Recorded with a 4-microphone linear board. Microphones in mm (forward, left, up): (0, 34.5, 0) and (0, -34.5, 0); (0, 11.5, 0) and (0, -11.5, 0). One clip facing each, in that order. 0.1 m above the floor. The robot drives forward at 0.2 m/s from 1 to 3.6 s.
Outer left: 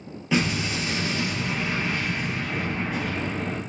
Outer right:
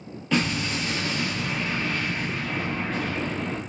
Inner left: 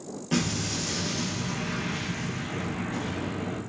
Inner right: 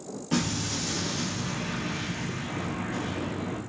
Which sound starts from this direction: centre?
An explosion, at 0.3 s.